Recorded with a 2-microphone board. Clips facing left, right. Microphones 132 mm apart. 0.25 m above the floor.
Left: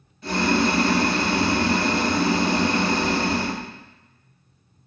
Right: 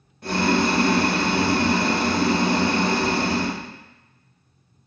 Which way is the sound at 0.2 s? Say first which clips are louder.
Even; 70° right (ahead or behind).